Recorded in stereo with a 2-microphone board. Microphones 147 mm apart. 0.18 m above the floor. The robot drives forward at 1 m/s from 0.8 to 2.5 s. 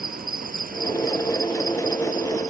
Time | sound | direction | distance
0.0 | an insect | 75° right (ahead or behind) | ?